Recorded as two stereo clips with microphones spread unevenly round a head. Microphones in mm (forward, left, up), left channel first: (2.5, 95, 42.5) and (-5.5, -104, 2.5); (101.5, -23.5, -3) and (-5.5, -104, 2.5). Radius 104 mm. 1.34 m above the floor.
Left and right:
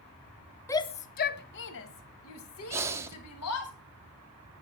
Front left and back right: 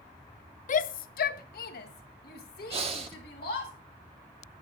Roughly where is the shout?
Ahead.